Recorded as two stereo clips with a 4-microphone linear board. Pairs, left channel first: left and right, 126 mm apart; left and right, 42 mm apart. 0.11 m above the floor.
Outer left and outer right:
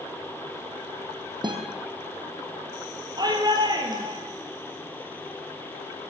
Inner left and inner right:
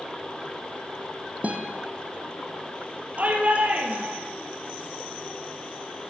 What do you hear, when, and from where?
1.4 s a guitar: 40° right (ahead or behind), 1.9 m
3.2 s a shout: 35° right (ahead or behind), 3 m